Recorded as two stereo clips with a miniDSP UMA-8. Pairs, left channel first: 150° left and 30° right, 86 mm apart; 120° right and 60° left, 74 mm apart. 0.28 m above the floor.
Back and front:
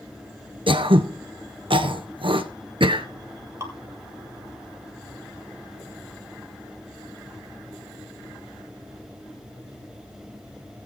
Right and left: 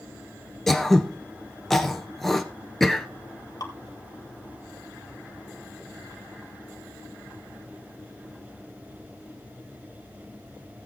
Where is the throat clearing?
35° right, 1.2 m.